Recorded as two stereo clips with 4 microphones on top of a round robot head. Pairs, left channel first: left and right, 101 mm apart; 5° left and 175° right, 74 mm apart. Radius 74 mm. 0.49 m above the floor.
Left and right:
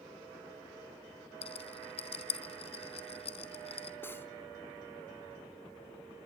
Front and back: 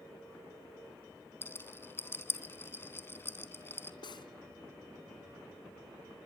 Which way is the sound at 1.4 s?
65° left.